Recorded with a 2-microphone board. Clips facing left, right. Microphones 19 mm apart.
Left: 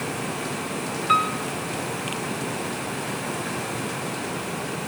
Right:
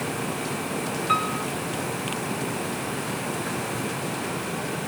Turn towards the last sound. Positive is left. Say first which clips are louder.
# left 4 dB
turn(degrees=15)  # may be behind; listen again after turning